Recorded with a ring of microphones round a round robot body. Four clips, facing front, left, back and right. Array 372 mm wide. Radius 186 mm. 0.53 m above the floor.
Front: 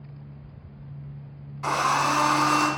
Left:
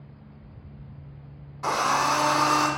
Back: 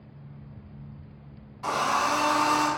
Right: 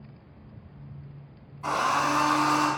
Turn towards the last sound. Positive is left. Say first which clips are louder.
# left 2 dB, front 2 dB
turn(degrees=80)